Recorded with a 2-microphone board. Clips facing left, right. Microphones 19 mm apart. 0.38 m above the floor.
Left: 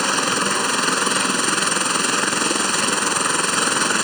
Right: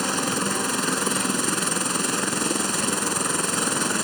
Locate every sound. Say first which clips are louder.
0.0 s a helicopter: left 5 dB; 20° left (ahead or behind)